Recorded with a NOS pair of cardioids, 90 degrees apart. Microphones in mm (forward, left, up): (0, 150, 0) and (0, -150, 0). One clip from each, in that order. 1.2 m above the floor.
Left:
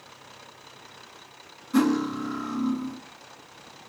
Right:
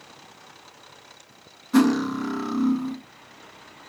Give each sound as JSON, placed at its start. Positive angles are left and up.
{"t": 1.7, "sound": "cutlery clinking", "azimuth_deg": -35, "distance_m": 1.0}